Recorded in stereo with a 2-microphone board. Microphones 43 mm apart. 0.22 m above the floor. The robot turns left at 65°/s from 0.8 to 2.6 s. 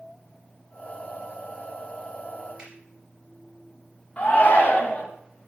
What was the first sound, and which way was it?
A finger snap, 25° right (ahead or behind).